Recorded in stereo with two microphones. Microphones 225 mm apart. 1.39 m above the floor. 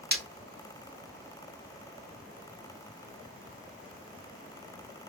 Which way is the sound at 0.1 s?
45° right (ahead or behind).